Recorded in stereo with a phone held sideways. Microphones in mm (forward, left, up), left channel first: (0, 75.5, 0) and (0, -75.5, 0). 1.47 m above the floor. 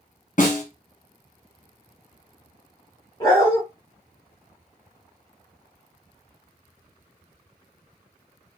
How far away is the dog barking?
About 1.3 m.